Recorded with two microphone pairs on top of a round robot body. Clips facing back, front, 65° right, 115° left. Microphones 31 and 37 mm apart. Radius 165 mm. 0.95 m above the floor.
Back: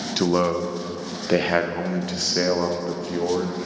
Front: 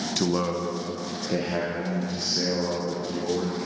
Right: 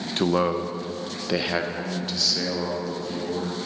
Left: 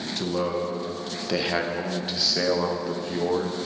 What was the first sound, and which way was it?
A man speaking, 105° right.